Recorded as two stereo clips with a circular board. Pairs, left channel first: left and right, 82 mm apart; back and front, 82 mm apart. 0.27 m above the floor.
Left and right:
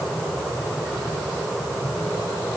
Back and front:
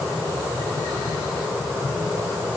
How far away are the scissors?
No scissors in this recording.